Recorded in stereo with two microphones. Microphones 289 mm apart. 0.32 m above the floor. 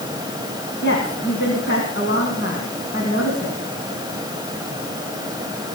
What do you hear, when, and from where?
0.8 s a woman speaking: 40° left (ahead or behind), 3 m